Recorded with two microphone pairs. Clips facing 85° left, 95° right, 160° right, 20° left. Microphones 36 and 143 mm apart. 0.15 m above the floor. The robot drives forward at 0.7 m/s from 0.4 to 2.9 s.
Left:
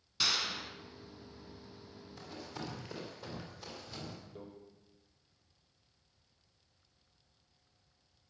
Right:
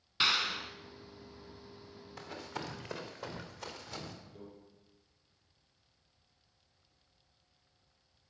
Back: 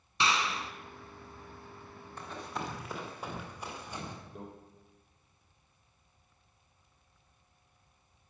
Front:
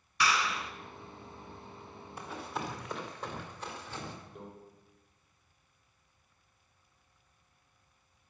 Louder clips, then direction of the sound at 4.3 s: Left 2 dB, back 6 dB; 155° left.